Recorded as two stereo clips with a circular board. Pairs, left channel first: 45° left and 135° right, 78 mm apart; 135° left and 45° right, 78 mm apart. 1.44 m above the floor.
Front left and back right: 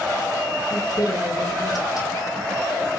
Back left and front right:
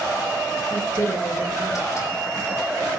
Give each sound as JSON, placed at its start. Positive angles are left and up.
{"t": 0.7, "sound": "a woman speaking", "azimuth_deg": 85, "distance_m": 5.5}